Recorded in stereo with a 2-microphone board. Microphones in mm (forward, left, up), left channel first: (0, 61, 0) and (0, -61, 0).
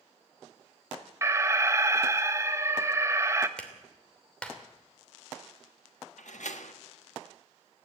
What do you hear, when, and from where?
1.2 s an alarm: 25° right (ahead or behind), 1.1 m
3.6 s a clap: 10° left (ahead or behind), 3 m
6.2 s a door slam: 80° left, 1.4 m